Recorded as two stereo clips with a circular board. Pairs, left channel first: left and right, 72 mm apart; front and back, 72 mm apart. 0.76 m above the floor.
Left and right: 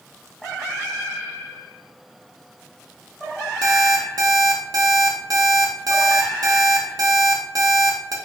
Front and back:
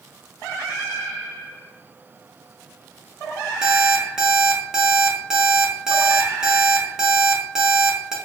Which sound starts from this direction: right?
An alarm clock, at 3.6 s.